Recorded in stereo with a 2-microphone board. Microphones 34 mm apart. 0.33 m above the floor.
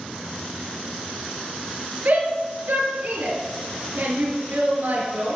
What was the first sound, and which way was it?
A shout, 70° right (ahead or behind).